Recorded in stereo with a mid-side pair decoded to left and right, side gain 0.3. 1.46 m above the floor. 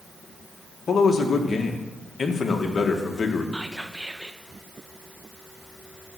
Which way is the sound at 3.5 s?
10° right.